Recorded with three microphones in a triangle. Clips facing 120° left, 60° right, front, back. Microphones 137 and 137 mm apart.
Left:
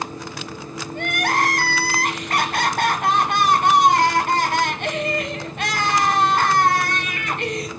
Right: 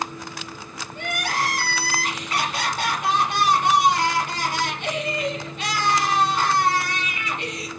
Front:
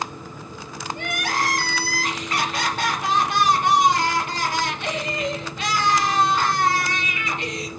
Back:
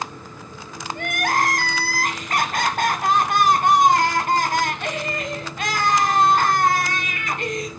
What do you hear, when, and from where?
0.9 s crying: 145° left, 1.1 m